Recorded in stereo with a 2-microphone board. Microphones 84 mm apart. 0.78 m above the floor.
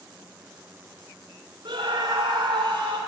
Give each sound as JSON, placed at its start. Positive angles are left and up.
{"t": 1.6, "sound": "a scream", "side_deg": -75, "distance_m": 2.5}